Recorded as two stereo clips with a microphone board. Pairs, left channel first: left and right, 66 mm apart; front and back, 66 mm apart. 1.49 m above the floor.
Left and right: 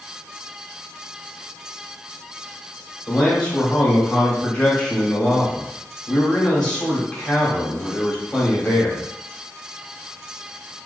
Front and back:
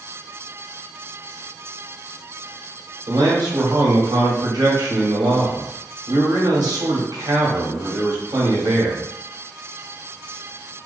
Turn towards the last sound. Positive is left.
turn(degrees=170)